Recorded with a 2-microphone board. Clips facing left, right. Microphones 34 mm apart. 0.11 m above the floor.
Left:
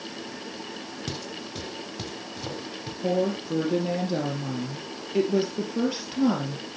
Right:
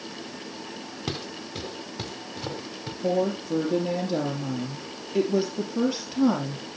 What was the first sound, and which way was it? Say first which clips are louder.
Footsteps: right 3 dB; 25° right (ahead or behind).